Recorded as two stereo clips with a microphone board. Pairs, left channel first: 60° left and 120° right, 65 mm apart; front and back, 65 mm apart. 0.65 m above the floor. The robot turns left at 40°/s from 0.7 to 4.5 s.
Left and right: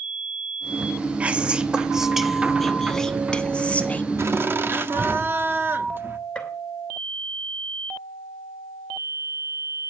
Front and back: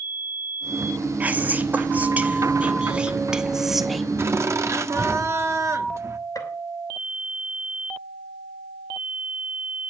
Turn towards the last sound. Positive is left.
turn(degrees=-10)